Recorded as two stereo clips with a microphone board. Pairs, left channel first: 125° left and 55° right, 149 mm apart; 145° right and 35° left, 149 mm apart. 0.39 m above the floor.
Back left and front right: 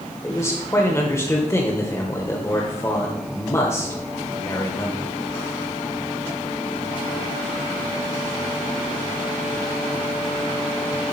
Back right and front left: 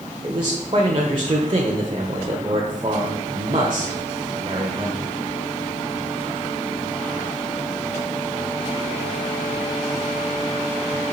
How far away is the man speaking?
About 1.2 m.